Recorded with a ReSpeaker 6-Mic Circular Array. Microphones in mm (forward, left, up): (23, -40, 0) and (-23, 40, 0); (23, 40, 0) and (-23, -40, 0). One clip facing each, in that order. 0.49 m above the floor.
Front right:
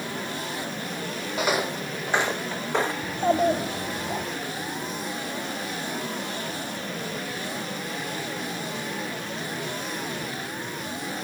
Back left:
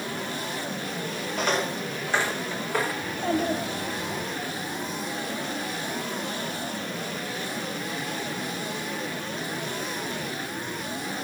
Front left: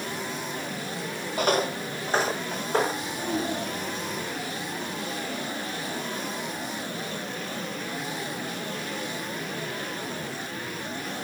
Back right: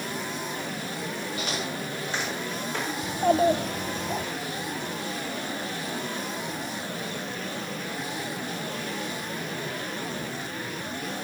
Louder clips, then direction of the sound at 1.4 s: Front right 1 dB, front left 12 dB; 25° left.